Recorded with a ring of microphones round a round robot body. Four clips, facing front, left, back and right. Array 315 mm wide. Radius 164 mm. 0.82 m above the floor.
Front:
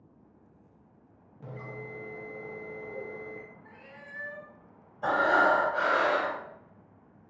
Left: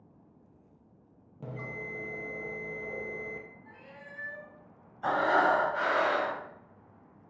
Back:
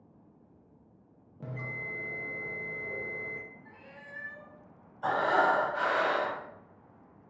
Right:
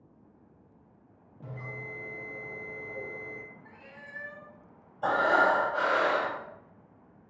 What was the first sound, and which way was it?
A bell, 120° left.